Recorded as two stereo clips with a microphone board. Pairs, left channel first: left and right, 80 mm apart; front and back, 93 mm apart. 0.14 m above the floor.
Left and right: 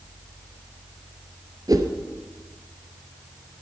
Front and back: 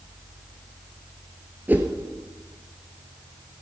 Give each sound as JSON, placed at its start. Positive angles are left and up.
{"t": 1.7, "sound": "a whoosh", "azimuth_deg": -115, "distance_m": 1.2}